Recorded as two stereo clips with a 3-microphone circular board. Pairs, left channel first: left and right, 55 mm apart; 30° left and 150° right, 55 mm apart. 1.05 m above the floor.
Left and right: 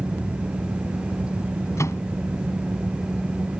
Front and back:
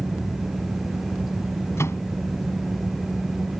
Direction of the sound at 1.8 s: 65° left.